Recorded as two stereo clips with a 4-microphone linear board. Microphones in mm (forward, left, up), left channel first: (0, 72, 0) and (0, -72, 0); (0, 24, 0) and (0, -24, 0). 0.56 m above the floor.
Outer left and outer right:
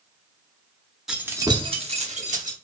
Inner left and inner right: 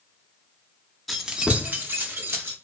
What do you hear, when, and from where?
1.1 s keys jangling: 5° right (ahead or behind), 0.5 m; by 2.5 s 60° right (ahead or behind), 0.9 m